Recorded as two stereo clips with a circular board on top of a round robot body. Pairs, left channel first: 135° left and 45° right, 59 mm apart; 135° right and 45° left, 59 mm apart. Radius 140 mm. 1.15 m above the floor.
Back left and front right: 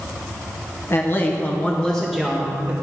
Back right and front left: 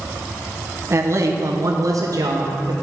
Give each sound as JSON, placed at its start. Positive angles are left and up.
{"t": 0.9, "sound": "a man speaking", "azimuth_deg": 90, "distance_m": 1.4}